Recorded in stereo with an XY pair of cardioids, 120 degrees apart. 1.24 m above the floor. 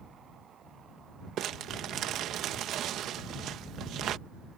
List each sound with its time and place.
1.4 s crumpling: 65° right